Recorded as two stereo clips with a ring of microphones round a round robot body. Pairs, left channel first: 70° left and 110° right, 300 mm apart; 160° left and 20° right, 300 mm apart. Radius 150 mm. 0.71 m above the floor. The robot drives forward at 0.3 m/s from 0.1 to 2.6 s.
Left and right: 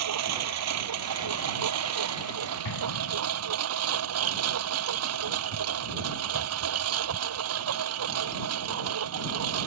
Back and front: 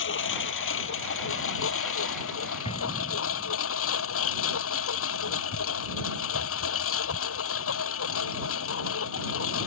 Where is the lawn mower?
150° right; by 9.7 s 155° right.